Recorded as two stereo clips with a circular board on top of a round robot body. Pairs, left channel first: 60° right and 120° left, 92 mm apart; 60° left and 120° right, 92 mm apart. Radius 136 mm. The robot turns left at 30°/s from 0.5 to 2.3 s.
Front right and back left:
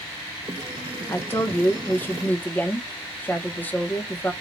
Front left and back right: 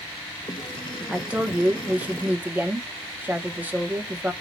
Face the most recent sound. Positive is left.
turn(degrees=-95)